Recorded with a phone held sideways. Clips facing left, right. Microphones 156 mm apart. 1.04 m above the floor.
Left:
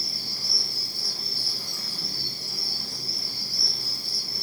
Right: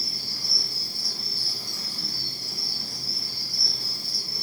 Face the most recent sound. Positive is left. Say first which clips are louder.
# even
turn(degrees=55)  # may be behind; listen again after turning